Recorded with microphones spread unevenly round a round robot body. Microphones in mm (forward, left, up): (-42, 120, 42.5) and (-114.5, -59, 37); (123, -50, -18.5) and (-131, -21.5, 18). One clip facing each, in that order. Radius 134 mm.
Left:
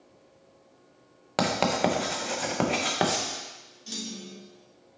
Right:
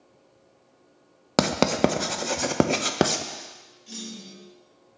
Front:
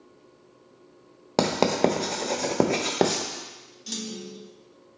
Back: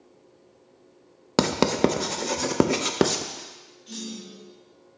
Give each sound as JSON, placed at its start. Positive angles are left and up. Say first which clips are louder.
{"t": 1.4, "sound": "writing", "louder": "right 4 dB, back 1 dB", "azimuth_deg": -115, "distance_m": 0.5}
{"t": 3.9, "sound": "a clunk", "louder": "left 1 dB, front 1 dB", "azimuth_deg": 20, "distance_m": 0.8}